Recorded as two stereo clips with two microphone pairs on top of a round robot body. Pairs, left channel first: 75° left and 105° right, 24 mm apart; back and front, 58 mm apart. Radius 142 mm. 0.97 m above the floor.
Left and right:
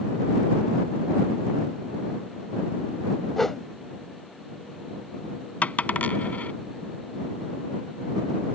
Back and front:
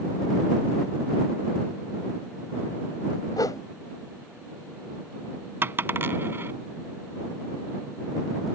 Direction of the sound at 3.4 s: 150° left.